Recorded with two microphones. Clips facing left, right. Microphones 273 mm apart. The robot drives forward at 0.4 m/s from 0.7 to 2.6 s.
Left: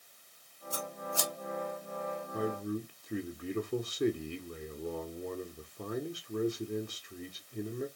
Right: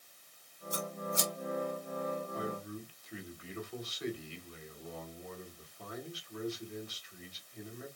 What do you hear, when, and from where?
0.7 s scissors: 20° right (ahead or behind), 2 m
2.3 s a man speaking: 55° left (ahead or behind), 1.3 m